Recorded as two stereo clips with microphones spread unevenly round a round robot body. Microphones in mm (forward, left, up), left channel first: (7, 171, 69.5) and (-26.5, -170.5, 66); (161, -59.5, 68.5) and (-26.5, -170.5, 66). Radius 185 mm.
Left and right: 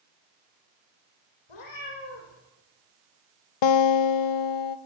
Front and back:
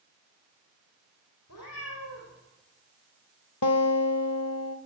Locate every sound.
1.5 s a cat meowing: 75° left, 5.5 m
3.6 s a guitar: 70° left, 0.6 m